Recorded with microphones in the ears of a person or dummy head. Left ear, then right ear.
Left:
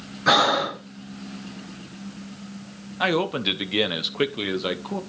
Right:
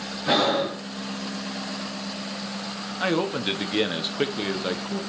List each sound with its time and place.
0.3 s breathing: 50° left (ahead or behind), 0.9 m
3.0 s a man speaking: 15° left (ahead or behind), 0.7 m